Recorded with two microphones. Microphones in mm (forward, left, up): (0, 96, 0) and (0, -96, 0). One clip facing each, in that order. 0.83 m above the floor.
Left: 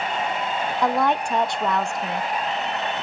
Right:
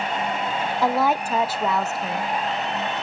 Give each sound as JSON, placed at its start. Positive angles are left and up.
{"t": 0.8, "sound": "a woman speaking", "side_deg": -5, "distance_m": 0.5}